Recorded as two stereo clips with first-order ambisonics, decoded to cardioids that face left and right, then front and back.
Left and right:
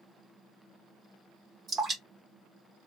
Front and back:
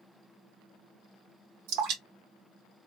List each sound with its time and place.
1.7 s dripping: 160° right, 1.1 m